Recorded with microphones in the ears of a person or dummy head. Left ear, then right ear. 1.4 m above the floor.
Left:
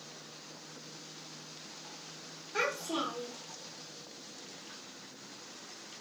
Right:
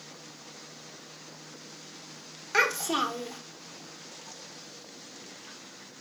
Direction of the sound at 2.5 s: 55° right (ahead or behind).